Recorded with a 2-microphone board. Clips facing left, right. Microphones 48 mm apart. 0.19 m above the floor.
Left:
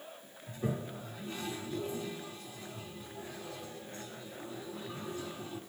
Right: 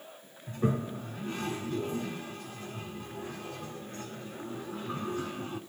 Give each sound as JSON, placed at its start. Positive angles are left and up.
{"t": 0.5, "sound": "a toilet flushing", "side_deg": -50, "distance_m": 1.0}